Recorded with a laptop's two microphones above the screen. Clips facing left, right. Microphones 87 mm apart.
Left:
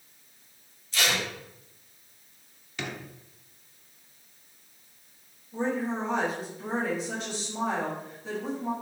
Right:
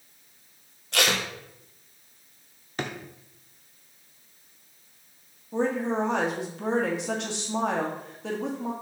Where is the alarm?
I don't hear an alarm.